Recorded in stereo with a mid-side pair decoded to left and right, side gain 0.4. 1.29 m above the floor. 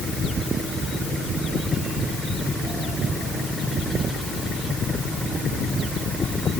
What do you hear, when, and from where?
Only background noise.